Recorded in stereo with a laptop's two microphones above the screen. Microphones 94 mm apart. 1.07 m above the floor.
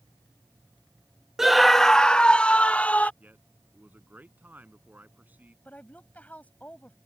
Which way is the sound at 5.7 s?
15° left (ahead or behind).